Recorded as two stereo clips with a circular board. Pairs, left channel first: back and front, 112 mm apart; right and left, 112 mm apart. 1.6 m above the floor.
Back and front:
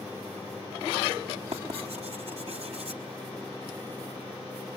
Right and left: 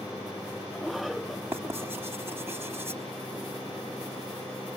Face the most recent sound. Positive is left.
turn(degrees=20)